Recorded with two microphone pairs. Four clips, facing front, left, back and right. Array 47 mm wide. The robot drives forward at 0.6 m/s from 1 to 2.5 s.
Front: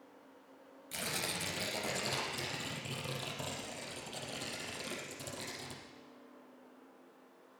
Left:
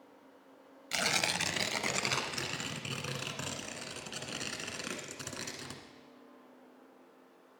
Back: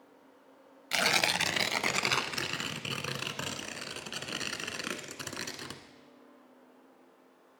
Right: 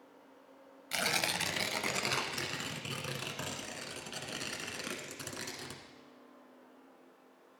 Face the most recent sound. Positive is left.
turn(degrees=180)